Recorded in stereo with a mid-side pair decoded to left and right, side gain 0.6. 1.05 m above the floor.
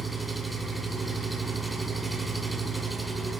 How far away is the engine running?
About 2.5 m.